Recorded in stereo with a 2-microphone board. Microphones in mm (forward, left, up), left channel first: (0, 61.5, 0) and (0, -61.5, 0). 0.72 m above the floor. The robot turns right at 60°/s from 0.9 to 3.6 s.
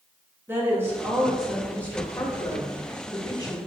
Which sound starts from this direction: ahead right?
A woman speaking, at 0.5 s.